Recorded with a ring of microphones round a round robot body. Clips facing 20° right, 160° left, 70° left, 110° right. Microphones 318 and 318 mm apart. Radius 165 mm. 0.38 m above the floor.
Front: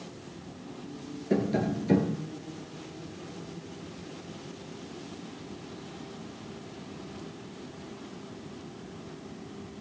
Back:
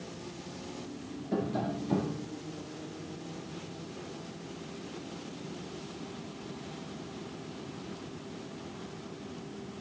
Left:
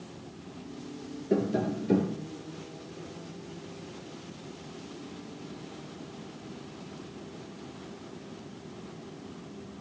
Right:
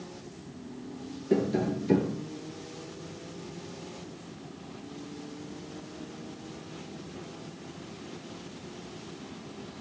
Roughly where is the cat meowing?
I don't hear a cat meowing.